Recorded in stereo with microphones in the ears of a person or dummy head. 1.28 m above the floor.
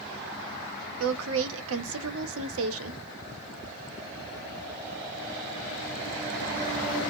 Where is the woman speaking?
85° right, 0.7 m.